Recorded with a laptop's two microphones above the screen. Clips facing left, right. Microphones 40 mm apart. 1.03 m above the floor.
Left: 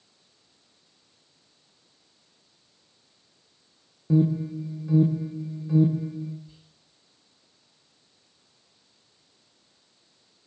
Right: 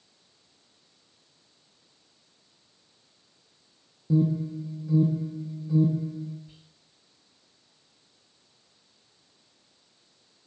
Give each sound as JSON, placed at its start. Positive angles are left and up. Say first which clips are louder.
{"t": 4.1, "sound": "an alarm", "louder": "left 2 dB", "side_deg": 55, "distance_m": 0.7}
{"t": 6.5, "sound": "whispering", "louder": "even", "side_deg": -70, "distance_m": 2.0}